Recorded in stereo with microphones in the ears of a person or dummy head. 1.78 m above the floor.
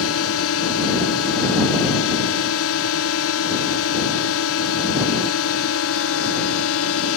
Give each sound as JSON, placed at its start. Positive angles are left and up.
{"t": 0.0, "sound": "a drone", "side_deg": 70}